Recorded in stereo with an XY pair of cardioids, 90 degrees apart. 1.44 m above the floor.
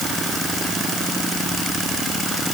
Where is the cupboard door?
I don't hear a cupboard door.